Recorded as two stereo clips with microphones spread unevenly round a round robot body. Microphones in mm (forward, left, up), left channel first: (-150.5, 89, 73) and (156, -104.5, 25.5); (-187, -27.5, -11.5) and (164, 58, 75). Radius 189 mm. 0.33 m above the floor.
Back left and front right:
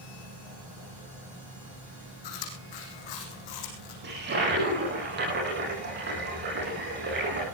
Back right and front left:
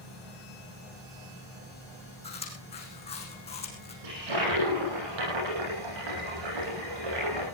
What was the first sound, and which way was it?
Chewing, 120° left.